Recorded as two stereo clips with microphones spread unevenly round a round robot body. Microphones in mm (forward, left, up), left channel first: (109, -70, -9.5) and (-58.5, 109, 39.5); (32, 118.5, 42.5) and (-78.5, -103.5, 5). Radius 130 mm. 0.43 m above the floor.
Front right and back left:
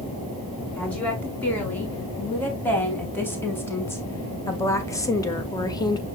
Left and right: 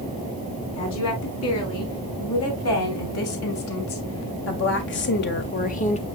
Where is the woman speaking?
35° left, 4.5 m; by 6.0 s straight ahead, 1.3 m.